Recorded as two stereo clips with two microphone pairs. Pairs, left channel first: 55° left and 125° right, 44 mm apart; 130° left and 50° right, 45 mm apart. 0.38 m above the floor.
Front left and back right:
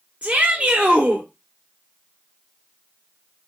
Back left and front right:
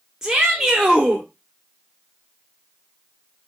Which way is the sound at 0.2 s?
115° right.